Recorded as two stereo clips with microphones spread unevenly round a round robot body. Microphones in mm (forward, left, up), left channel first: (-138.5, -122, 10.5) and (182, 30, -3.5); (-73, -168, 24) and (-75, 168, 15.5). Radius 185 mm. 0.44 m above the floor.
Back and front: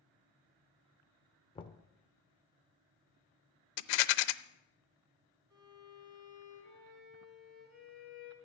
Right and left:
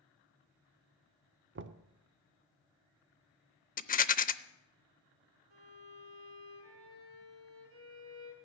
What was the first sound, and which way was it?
Knocking, 130° left.